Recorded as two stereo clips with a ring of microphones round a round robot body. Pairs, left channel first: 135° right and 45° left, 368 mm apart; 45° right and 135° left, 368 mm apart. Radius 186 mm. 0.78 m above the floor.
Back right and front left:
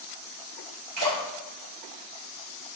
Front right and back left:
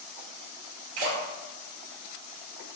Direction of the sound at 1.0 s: 85° left.